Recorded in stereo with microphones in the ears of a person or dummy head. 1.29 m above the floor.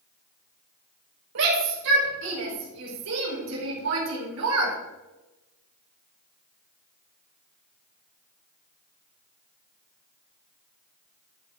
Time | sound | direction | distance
1.4 | a shout | 75° right (ahead or behind) | 6 m